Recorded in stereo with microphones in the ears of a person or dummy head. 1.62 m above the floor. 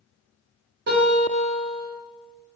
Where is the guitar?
50° right (ahead or behind), 1.9 m.